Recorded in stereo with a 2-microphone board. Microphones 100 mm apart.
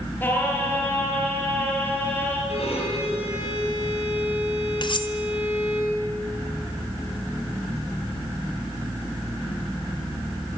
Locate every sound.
0.2 s singing: 20° left (ahead or behind), 6 m
2.5 s a violin: 85° left, 8.5 m
4.8 s cutlery clinking: 55° left (ahead or behind), 1.8 m